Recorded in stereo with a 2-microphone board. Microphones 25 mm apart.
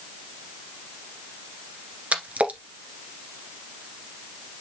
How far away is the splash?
About 1.4 m.